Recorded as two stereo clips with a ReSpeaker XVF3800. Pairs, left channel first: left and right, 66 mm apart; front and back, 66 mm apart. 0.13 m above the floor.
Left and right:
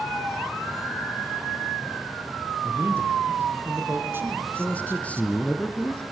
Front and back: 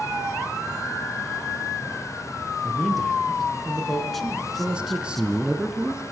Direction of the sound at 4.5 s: 125° left.